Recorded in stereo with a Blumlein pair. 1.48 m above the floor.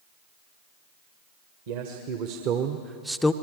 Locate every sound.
1.7 s a man speaking: 50° right, 1.6 m; by 3.3 s 15° left, 0.5 m